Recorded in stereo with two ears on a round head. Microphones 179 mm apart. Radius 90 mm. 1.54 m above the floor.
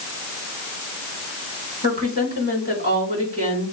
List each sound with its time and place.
1.8 s a woman speaking: 40° right (ahead or behind), 5 m